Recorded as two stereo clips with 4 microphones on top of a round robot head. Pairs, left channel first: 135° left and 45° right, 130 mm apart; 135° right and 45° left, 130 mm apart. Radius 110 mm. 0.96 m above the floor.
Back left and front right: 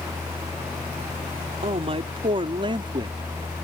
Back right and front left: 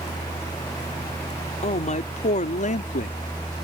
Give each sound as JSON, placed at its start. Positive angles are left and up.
{"t": 1.6, "sound": "a man speaking", "azimuth_deg": -95}